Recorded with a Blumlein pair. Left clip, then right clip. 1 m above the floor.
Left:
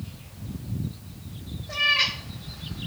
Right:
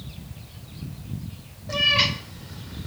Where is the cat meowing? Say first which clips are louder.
Right 2 dB; 65° right, 1.5 m.